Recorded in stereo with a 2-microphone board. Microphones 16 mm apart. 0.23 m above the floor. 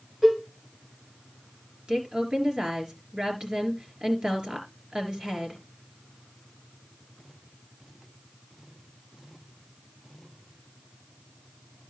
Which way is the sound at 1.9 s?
60° right (ahead or behind).